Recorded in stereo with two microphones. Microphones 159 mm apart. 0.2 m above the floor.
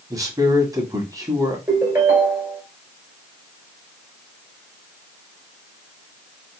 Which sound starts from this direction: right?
A man speaking, at 0.1 s.